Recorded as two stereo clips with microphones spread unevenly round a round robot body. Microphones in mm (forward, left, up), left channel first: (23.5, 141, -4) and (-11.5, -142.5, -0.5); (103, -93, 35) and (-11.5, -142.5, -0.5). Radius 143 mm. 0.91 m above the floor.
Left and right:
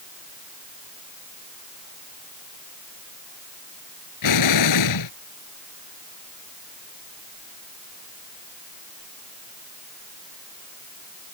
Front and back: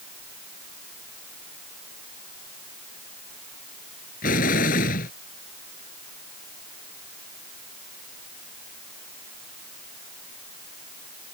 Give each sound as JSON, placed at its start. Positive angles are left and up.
{"t": 4.2, "sound": "an explosion", "azimuth_deg": 60}